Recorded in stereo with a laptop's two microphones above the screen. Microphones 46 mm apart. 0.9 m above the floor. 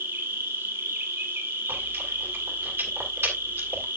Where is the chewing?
60° right (ahead or behind), 2 m.